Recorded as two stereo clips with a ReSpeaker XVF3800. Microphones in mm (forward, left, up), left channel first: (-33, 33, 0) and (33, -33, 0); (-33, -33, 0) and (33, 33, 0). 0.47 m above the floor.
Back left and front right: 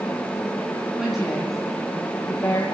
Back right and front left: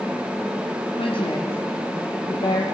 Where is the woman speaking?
130° right, 4 m; by 2.6 s 165° right, 2 m.